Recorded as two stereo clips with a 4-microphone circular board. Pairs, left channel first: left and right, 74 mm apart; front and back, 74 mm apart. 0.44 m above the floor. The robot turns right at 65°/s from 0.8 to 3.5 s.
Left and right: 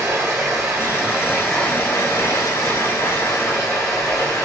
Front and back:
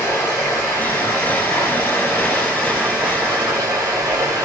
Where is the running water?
35° right, 1.5 m; by 4.5 s 140° left, 1.5 m.